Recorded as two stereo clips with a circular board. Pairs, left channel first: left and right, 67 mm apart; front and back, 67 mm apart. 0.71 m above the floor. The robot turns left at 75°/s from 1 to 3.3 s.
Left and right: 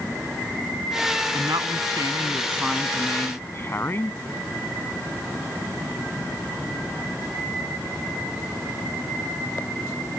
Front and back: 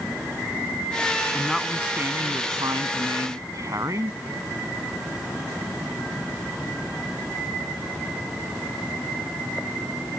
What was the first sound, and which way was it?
A woman speaking, 70° right.